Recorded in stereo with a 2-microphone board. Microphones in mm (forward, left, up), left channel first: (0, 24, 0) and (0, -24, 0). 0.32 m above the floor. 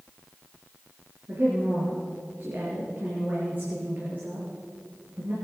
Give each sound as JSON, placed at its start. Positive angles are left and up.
{"t": 1.3, "sound": "a woman speaking", "side_deg": -40, "distance_m": 5.0}